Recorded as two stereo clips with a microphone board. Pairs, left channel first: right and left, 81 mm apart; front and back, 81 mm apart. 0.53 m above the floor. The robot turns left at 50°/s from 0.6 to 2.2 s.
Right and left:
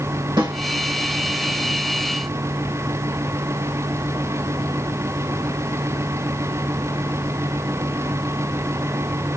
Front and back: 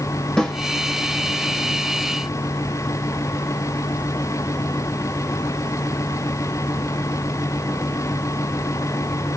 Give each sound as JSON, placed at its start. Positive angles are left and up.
{"t": 0.4, "sound": "a snare drum", "azimuth_deg": 80, "distance_m": 2.0}